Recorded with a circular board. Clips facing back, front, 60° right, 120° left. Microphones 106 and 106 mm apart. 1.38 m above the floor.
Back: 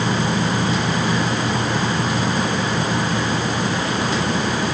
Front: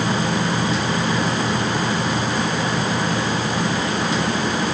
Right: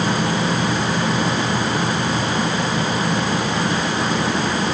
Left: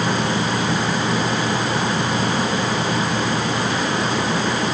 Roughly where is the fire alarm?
I don't hear a fire alarm.